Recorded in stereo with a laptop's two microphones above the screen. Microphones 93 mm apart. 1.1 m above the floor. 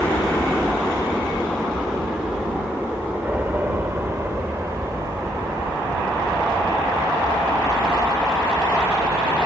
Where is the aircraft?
15° left (ahead or behind); by 9.5 s 45° right (ahead or behind).